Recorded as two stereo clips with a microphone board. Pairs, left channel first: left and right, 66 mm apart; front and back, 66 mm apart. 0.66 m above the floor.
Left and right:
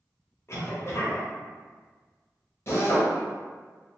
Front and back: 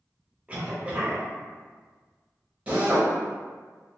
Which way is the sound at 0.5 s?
120° left.